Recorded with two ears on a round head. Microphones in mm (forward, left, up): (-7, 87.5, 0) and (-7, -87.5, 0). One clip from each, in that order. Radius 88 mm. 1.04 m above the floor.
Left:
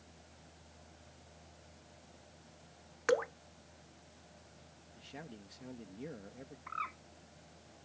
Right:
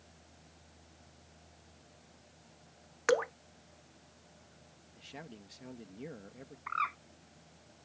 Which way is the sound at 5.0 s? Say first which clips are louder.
Right 1 dB; 15° right (ahead or behind).